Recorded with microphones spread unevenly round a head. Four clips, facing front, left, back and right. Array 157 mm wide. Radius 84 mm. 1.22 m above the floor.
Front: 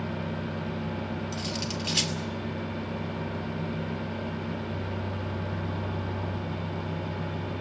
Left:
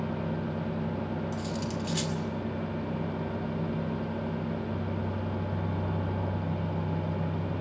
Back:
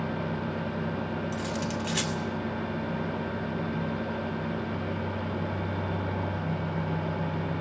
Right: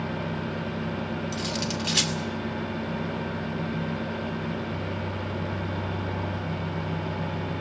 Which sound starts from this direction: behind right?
Cutlery clinking, at 1.3 s.